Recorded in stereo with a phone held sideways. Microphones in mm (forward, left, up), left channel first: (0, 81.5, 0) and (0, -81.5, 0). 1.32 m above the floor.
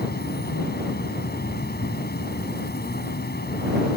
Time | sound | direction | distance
0.0 | an insect | 80° left | ?